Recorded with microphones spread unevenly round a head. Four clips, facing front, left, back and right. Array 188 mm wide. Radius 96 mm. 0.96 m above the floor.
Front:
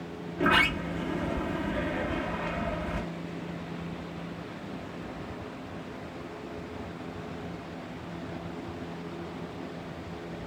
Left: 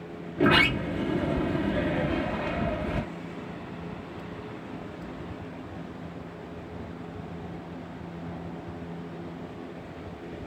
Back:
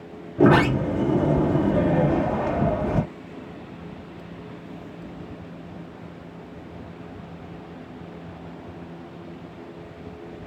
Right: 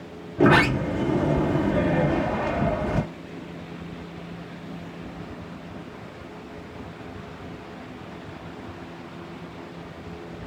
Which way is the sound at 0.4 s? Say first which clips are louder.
Right 5 dB, back 9 dB; 155° right.